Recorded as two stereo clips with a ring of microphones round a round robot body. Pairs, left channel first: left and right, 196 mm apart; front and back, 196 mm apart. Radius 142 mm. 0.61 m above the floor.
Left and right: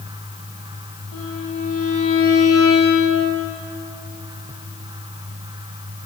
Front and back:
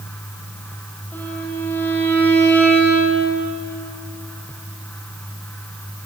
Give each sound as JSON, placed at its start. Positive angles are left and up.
{"t": 1.1, "sound": "a violin", "azimuth_deg": 80, "distance_m": 8.5}